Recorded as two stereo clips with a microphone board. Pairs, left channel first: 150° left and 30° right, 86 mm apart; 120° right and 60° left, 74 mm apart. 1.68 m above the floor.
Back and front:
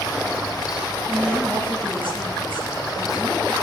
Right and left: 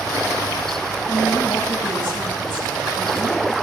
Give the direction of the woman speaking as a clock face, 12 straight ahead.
4 o'clock.